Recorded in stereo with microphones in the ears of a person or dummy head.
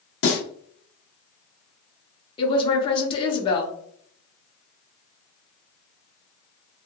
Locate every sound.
0.2 s a snare drum: 80° left, 1.2 m
2.4 s a woman speaking: 25° left (ahead or behind), 0.7 m